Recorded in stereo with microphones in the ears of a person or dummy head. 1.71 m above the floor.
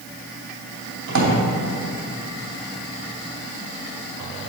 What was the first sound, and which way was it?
A drawer, 60° right (ahead or behind).